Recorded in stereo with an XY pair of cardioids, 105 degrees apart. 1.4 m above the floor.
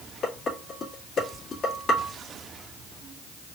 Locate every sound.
0.2 s dishes clattering: 50° left, 1.9 m